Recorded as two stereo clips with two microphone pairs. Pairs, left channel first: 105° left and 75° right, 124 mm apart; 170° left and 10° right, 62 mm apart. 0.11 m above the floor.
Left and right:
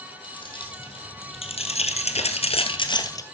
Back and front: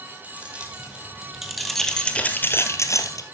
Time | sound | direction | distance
0.2 | keys jangling | 55° left | 3 m